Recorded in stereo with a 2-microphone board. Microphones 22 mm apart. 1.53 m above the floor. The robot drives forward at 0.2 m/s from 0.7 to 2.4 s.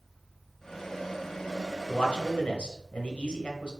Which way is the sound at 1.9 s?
60° left (ahead or behind).